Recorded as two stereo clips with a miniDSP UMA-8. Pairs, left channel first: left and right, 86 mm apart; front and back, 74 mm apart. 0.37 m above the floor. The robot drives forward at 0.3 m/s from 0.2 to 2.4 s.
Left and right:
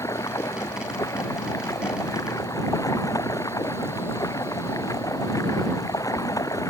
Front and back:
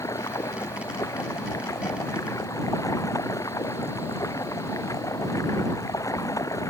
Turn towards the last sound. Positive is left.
turn(degrees=40)